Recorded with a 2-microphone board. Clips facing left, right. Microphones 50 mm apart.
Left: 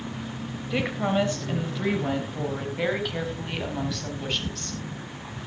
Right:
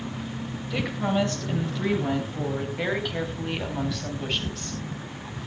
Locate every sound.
0.7 s a woman speaking: 25° left (ahead or behind), 3 m; by 4.8 s 10° right (ahead or behind), 4 m